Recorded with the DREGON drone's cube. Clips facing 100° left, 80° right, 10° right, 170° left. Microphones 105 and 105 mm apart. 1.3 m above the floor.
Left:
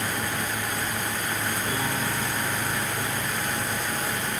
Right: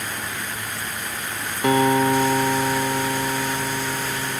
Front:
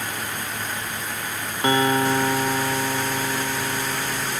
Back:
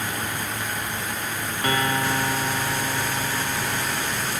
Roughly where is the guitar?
Right.